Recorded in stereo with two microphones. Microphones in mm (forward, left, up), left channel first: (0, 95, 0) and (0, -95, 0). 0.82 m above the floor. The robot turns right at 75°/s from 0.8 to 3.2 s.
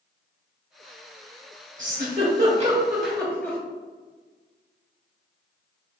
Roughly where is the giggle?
Right.